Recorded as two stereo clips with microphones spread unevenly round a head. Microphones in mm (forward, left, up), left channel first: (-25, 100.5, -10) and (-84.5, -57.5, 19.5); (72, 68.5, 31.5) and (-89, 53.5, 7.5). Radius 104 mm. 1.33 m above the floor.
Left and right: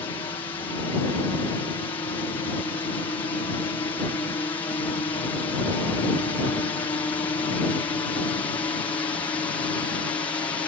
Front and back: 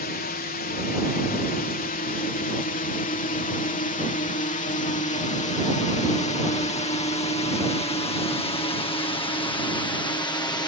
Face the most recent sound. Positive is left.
turn(degrees=40)